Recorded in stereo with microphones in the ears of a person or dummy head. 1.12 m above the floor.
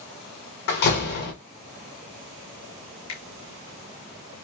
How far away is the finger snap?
About 2.5 m.